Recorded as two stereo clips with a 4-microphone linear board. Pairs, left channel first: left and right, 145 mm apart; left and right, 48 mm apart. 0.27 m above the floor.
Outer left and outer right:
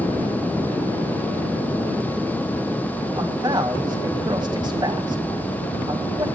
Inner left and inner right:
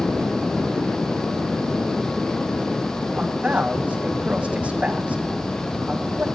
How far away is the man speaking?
About 1.9 m.